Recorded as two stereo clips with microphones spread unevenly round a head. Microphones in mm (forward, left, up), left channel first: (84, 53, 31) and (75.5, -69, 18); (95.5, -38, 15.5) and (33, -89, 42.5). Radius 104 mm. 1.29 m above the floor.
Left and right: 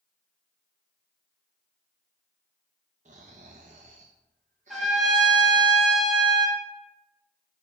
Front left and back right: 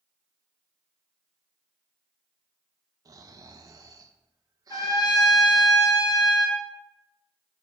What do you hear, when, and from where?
3.0 s snoring: 140° right, 0.5 m
4.7 s a trumpet: straight ahead, 1.8 m